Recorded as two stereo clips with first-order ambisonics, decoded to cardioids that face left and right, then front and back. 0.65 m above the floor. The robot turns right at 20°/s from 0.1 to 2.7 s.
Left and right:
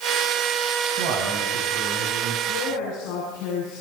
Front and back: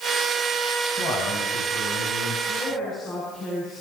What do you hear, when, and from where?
1.0 s a man speaking: 65° right, 6 m; by 2.4 s 35° right, 6 m
2.5 s a woman speaking: 65° left, 8 m; by 3.8 s 70° left, 8 m